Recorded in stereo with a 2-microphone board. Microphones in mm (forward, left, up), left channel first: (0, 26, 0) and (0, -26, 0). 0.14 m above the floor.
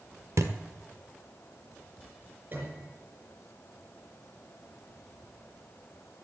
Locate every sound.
0.4 s a thud: 70° right (ahead or behind), 1.4 m
2.5 s a piano: 40° right (ahead or behind), 4.5 m